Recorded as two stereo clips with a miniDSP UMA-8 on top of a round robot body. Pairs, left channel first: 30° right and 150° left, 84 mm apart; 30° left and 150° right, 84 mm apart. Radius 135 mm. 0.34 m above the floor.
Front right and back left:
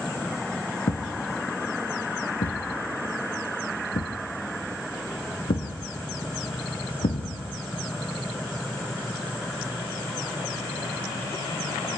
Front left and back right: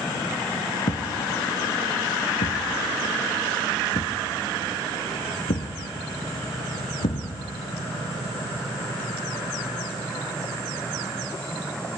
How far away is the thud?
About 1.9 m.